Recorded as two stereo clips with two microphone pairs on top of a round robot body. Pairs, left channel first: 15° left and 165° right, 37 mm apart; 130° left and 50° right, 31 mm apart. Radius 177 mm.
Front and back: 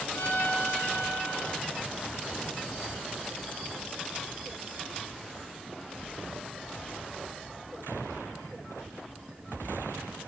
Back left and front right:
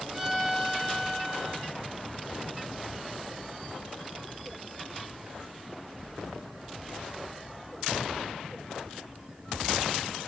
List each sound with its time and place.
0.1 s a violin: 30° left, 1.6 m